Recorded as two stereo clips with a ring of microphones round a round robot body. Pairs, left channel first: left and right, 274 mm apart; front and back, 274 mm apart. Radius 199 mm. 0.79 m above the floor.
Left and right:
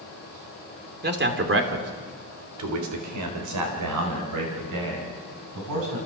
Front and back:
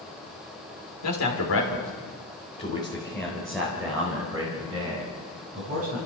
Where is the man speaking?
35° right, 3 m; by 6.0 s 110° right, 7 m.